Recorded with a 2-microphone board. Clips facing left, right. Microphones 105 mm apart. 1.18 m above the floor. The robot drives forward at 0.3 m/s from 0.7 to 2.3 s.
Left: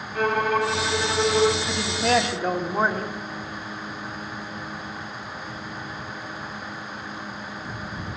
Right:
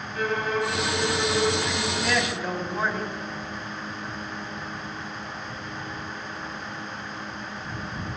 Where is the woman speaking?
50° left (ahead or behind), 1.8 m; by 3.2 s 45° left (ahead or behind), 1.9 m.